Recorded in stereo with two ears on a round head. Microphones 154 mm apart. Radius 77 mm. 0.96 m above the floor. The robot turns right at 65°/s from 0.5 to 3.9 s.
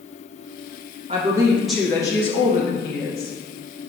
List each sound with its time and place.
1.1 s a woman speaking: 40° right, 1.0 m; by 3.3 s 105° left, 1.0 m